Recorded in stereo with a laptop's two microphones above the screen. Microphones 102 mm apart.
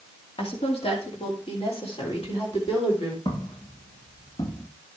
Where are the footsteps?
55° left (ahead or behind), 6.5 m; by 4.7 s 50° left (ahead or behind), 7 m.